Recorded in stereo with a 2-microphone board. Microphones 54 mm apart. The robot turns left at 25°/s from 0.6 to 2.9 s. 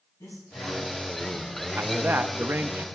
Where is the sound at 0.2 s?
70° left, 7.5 m; by 2.8 s 15° left, 7.5 m.